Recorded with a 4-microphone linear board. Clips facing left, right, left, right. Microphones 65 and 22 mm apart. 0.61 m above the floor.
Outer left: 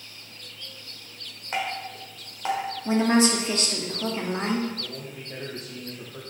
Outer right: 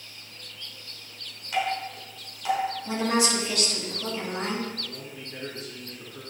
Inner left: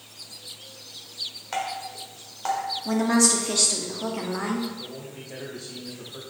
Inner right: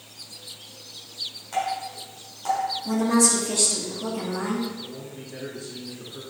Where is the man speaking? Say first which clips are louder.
Outer left 2 dB, inner right 1 dB; 60° left (ahead or behind), 3 m.